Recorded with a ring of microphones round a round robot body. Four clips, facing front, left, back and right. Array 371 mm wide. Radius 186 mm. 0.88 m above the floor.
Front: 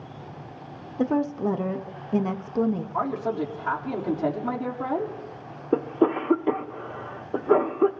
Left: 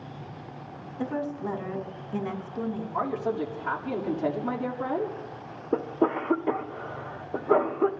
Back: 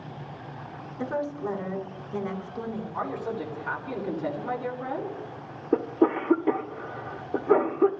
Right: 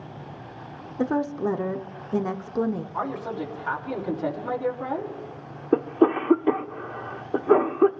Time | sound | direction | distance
1.0 | a woman speaking | 45° right | 0.9 m
2.9 | a man speaking | 25° left | 2.5 m
5.7 | a cough | 65° right | 0.7 m